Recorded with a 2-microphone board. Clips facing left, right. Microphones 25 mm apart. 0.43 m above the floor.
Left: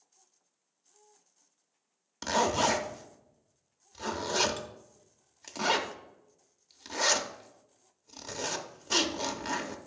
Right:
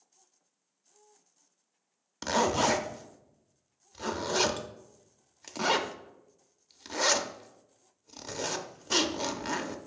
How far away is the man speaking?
No man speaking in this recording.